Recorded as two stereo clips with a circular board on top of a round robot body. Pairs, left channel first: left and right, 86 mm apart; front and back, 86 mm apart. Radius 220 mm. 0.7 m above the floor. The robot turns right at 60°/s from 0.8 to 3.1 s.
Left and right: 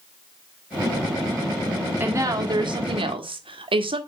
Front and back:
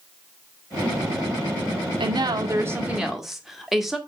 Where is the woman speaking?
160° right, 1.7 m; by 4.0 s 95° right, 1.7 m.